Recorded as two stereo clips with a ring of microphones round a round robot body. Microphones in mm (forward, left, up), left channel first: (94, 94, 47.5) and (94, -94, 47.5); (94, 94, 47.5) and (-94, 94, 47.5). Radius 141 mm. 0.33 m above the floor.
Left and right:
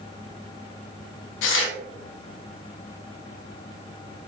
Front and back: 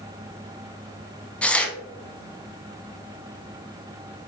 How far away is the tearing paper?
About 0.5 m.